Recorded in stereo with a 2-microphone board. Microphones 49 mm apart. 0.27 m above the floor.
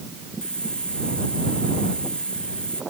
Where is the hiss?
15° left (ahead or behind).